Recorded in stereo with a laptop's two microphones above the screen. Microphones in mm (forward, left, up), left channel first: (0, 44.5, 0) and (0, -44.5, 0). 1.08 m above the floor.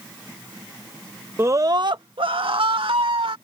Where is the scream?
30° right (ahead or behind); by 3.4 s 80° right.